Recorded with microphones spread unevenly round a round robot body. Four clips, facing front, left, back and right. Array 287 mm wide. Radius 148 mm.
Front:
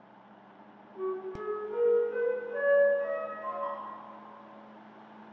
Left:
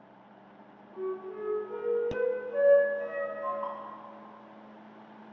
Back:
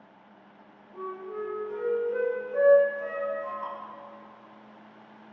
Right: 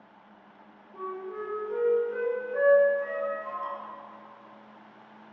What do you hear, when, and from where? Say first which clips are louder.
0.9 s a flute: even, front 1 dB; 100° left, 2 m
3.6 s dripping: right 1 dB, front 1 dB; 120° left, 1.8 m